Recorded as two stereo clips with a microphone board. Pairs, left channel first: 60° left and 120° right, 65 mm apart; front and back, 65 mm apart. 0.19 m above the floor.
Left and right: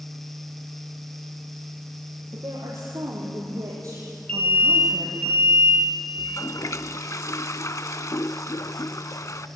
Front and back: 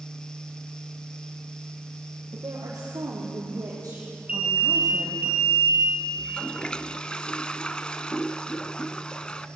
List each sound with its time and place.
2.3 s a woman speaking: 150° right, 6 m; by 5.3 s 145° right, 4.5 m
4.3 s an alarm: 120° left, 3 m
6.2 s a toilet flushing: 70° left, 0.6 m